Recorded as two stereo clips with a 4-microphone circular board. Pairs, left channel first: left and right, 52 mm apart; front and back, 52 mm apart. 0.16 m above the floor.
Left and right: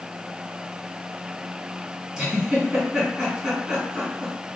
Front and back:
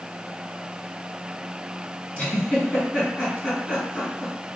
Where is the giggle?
30° right, 1.8 m.